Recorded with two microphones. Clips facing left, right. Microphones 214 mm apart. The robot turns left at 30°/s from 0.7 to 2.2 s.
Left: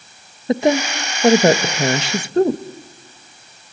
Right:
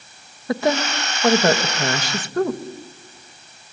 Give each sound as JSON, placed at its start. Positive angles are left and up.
{"t": 0.5, "sound": "a woman speaking", "side_deg": 20, "distance_m": 1.0}